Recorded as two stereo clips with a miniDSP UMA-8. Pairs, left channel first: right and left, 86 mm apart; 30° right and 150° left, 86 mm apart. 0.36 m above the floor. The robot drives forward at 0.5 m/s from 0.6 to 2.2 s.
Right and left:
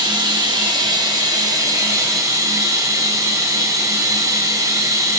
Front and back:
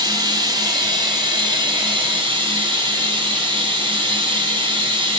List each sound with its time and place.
0.0 s running water: 115° left, 1.7 m; by 5.2 s 135° left, 2 m